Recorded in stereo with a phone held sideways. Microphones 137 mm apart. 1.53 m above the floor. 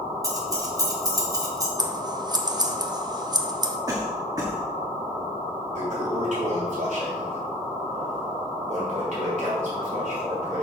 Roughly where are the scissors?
Right.